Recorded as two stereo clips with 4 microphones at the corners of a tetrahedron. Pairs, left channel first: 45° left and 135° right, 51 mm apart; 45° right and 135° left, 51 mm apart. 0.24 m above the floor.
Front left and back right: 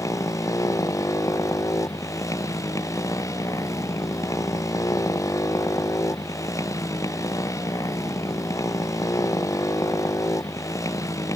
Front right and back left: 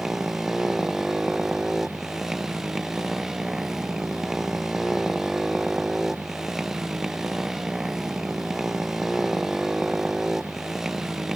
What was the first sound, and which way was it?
A motorcycle, 55° left.